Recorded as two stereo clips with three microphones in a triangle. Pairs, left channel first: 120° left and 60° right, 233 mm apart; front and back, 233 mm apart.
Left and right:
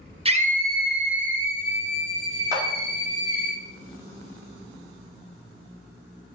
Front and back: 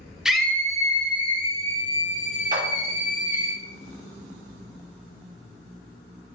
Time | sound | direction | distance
0.2 | a scream | 95° right | 0.5 m
2.5 | a clap | 135° right | 1.1 m